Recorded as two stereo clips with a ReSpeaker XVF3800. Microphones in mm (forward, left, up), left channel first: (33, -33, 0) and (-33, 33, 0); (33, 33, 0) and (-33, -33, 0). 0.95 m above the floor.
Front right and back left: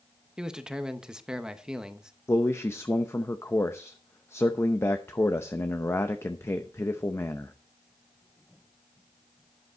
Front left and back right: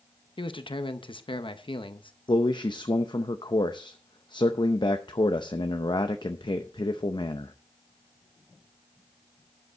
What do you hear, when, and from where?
0.4 s a man speaking: 55° left, 0.9 m
2.3 s a man speaking: 15° left, 0.6 m